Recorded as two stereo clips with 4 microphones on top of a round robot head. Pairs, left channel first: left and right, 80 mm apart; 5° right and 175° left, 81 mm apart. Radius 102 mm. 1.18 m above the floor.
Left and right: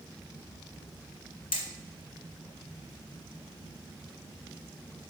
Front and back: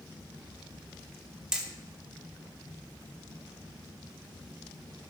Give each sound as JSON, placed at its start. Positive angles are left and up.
{"t": 1.5, "sound": "hammering", "azimuth_deg": 90, "distance_m": 2.0}